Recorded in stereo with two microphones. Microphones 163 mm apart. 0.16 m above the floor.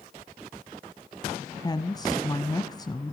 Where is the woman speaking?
25° left (ahead or behind), 1.1 m.